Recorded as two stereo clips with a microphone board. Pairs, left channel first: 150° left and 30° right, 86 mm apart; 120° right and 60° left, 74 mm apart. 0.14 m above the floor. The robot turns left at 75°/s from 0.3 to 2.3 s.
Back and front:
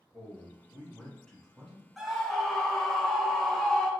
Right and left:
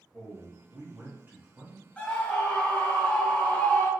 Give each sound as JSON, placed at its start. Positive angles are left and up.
{"t": 0.1, "sound": "a man speaking", "azimuth_deg": 145, "distance_m": 1.6}
{"t": 2.0, "sound": "a scream", "azimuth_deg": -110, "distance_m": 1.2}